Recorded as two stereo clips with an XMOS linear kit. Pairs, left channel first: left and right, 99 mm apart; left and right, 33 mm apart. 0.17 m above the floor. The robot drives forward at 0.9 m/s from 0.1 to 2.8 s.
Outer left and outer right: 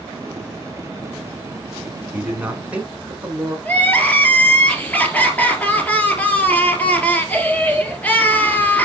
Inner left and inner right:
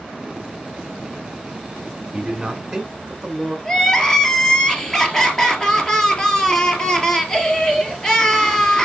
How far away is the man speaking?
About 1.8 m.